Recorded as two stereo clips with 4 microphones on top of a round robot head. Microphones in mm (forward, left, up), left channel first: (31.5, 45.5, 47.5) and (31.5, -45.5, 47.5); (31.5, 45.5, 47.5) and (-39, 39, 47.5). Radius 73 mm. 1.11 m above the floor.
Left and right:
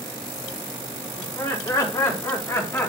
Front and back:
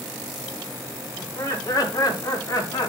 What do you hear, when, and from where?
1.2 s laughter: 45° left, 5.5 m; by 2.9 s 30° left, 3.5 m